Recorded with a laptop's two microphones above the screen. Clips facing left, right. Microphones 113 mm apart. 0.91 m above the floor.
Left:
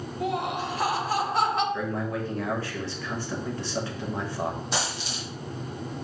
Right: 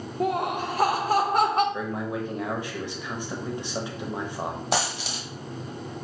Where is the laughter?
50° right (ahead or behind), 0.7 m.